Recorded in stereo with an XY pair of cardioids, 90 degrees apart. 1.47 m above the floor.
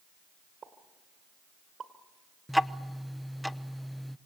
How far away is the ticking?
About 0.8 m.